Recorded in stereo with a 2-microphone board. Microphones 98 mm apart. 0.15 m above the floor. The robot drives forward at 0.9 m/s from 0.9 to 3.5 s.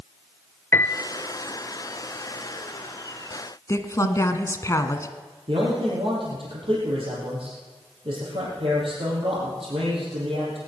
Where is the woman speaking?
30° left (ahead or behind), 1.2 m.